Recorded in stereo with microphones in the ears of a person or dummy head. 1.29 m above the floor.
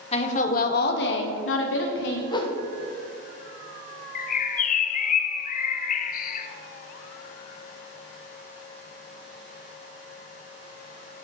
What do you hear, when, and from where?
0.1 s a woman speaking: 35° left (ahead or behind), 1.4 m; by 2.2 s 70° left (ahead or behind), 1.6 m
2.3 s a whoosh: 25° left (ahead or behind), 0.9 m
4.2 s a bird: 50° left (ahead or behind), 0.5 m